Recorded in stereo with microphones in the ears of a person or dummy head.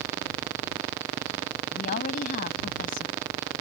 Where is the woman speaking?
50° left (ahead or behind).